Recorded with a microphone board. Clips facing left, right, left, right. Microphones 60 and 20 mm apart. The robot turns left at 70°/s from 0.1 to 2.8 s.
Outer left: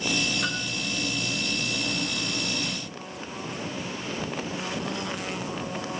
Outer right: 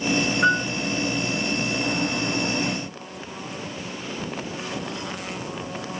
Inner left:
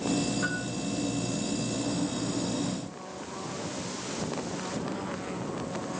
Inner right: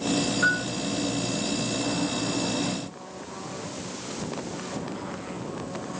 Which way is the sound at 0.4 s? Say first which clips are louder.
Outer right 11 dB, inner right 8 dB; 45° right (ahead or behind).